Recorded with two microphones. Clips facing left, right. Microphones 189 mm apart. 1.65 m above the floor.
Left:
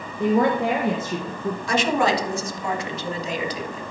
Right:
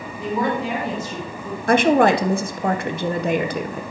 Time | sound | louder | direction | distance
0.2 | a woman speaking | left 4 dB | 60° left (ahead or behind) | 1.5 m
1.7 | a woman speaking | right 7 dB | 60° right (ahead or behind) | 1.0 m